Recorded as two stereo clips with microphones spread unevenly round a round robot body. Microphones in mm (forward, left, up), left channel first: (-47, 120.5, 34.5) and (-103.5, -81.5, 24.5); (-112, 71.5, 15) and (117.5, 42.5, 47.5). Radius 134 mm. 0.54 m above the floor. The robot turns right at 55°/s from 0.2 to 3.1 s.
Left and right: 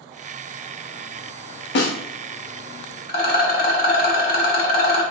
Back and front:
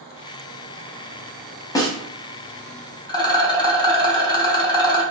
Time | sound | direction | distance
1.8 | a snare drum | 95° left | 0.5 m
3.1 | a rattle | 110° left | 0.8 m